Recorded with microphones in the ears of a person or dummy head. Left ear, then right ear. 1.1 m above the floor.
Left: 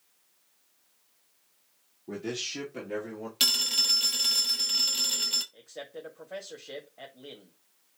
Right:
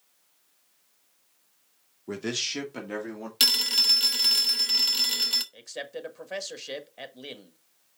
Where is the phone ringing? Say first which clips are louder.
Right 3 dB; 20° right (ahead or behind), 0.9 m.